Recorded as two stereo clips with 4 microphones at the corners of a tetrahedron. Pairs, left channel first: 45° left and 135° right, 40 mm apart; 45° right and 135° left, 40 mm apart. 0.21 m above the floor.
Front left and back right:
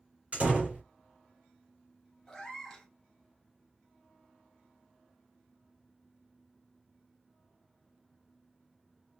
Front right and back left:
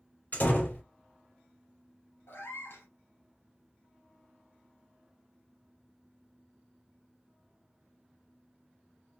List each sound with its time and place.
0.3 s a door slam: 85° right, 2.5 m
2.3 s a cat meowing: 35° right, 1.3 m